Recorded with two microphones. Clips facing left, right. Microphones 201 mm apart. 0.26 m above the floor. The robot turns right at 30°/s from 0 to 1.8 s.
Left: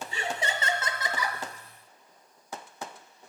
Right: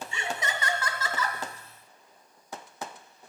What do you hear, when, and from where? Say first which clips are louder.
0.1 s laughter: left 2 dB; 130° left, 1.5 m; by 1.4 s 165° left, 1.5 m